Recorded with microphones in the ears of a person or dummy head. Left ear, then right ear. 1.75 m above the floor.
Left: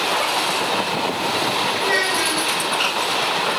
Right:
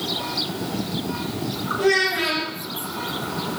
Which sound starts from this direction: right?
A child speaking, at 1.8 s.